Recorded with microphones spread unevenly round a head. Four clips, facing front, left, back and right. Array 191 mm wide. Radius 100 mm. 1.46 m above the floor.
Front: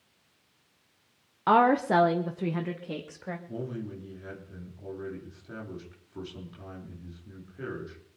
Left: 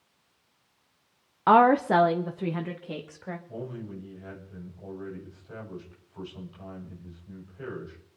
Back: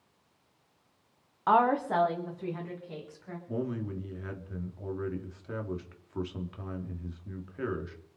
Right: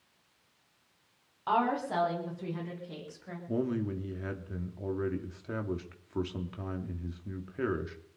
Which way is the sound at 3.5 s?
105° right.